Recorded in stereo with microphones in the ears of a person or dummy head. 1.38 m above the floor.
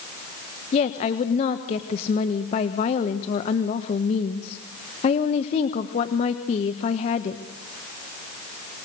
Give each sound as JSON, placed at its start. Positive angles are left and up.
{"t": 0.7, "sound": "a woman speaking", "side_deg": 50, "distance_m": 1.2}